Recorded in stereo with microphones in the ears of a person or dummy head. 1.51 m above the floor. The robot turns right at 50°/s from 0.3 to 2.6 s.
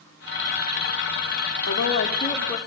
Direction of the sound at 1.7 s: 115° left.